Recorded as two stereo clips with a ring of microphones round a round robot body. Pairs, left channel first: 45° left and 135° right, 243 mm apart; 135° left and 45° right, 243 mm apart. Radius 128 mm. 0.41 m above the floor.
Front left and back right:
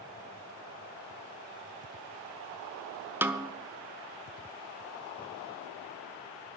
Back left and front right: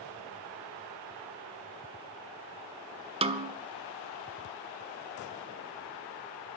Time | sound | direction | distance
3.2 | a snare drum | 65° right | 1.1 m